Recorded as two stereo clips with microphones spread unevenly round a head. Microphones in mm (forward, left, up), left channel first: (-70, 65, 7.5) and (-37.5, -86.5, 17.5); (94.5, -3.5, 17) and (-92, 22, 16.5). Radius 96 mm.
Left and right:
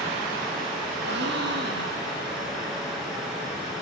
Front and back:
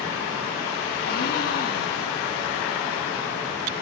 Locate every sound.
1.0 s a gasp: 50° right, 1.6 m